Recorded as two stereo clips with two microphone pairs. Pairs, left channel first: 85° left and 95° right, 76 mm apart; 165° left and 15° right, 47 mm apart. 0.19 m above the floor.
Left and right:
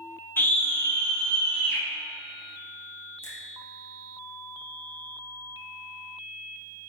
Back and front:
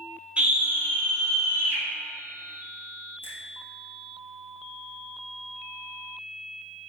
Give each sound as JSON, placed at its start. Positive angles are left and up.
{"t": 0.4, "sound": "a scream", "azimuth_deg": 35, "distance_m": 1.3}
{"t": 3.2, "sound": "a finger snap", "azimuth_deg": 25, "distance_m": 4.0}